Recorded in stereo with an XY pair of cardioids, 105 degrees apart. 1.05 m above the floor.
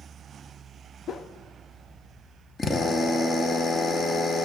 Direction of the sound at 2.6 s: 40° left.